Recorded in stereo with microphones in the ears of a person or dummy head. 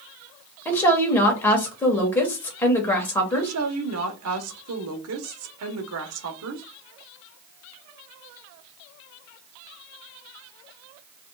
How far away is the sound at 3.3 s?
About 1.2 m.